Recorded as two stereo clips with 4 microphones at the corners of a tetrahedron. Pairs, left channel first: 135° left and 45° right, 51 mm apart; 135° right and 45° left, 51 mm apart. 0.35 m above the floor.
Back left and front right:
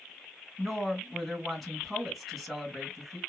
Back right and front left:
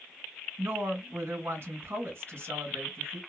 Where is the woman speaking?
45° left, 1.7 m.